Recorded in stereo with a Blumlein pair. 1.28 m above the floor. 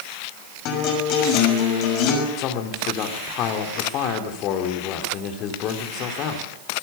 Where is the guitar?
40° left, 6.5 m.